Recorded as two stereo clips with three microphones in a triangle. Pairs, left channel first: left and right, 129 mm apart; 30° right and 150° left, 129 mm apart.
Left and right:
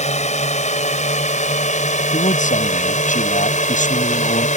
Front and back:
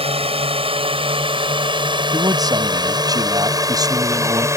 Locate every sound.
0.0 s a drone: 110° left; by 4.6 s 85° left
2.1 s a man speaking: 90° left